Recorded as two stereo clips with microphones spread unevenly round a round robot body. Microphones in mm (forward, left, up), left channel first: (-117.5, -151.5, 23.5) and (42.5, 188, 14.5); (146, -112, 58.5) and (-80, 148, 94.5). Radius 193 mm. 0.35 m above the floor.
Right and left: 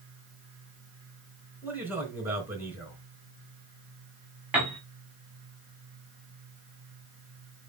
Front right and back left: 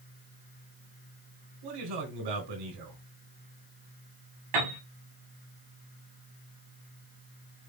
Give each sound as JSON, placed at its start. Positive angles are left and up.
{"t": 1.6, "sound": "a man speaking", "azimuth_deg": 150, "distance_m": 4.0}
{"t": 4.5, "sound": "a piano", "azimuth_deg": 150, "distance_m": 5.0}